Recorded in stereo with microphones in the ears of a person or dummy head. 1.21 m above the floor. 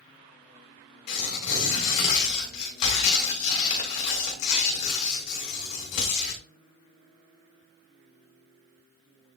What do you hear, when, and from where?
1.1 s tearing paper: 60° left (ahead or behind), 2.5 m